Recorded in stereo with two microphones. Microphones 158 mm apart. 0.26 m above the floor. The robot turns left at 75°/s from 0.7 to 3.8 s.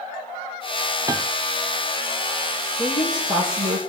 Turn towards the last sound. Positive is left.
turn(degrees=-55)